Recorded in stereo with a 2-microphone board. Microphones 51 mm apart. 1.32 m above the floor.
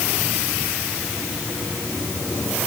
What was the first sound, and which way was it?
Only background noise.